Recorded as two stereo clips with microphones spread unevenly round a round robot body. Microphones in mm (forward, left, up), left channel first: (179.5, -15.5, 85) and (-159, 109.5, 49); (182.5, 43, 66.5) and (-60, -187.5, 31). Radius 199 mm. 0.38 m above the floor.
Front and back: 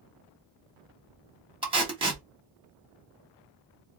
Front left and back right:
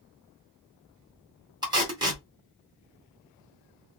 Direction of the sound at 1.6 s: 170° right.